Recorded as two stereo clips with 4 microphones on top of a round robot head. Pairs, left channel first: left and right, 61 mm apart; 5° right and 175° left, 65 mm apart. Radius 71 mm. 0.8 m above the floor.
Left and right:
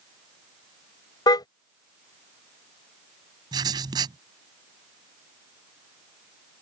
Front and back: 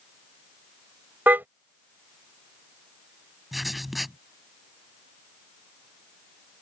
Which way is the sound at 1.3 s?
110° left.